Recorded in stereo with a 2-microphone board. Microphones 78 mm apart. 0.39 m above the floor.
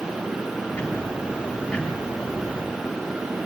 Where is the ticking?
15° left (ahead or behind), 7.5 m.